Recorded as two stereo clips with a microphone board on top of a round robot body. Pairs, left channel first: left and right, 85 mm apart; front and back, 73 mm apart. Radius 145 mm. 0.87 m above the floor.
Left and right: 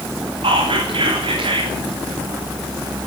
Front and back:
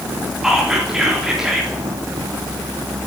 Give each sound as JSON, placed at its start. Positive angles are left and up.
{"t": 0.4, "sound": "whispering", "azimuth_deg": -95, "distance_m": 3.0}